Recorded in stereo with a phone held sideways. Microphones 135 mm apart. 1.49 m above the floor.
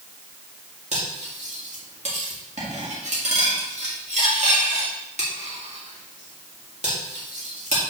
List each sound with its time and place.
0.9 s cutlery clinking: 60° right (ahead or behind), 1.7 m